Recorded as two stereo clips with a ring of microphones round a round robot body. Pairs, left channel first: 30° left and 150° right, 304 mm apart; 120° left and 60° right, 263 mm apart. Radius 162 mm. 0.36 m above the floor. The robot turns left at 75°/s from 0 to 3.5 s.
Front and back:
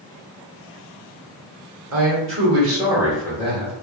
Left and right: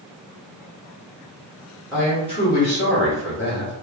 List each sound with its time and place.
1.9 s a man speaking: 145° right, 1.9 m; by 3.8 s 95° left, 1.9 m